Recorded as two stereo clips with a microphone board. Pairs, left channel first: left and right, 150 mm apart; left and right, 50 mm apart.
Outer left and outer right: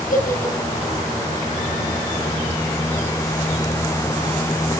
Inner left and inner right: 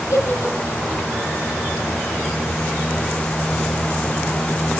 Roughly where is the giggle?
Left.